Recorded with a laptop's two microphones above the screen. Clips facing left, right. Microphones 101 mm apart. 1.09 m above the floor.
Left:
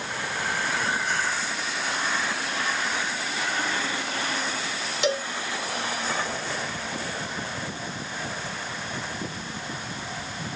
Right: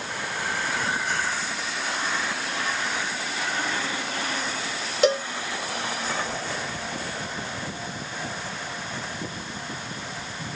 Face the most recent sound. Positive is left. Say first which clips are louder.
# right 5 dB
turn(degrees=-40)  # may be behind; listen again after turning